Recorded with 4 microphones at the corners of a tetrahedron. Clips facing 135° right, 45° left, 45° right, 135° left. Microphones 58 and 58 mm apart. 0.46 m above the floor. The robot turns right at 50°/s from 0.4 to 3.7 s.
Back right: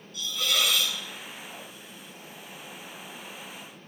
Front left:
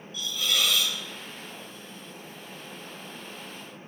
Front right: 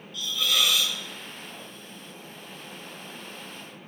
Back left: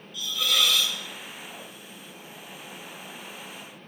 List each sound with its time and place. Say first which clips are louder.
0.1 s a hiss: even, even; 140° right, 1.5 m; by 1.0 s 110° right, 1.5 m